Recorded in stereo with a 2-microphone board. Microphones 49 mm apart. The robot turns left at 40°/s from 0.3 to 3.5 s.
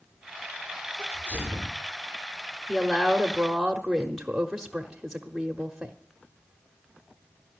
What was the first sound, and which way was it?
A sneeze, 80° right.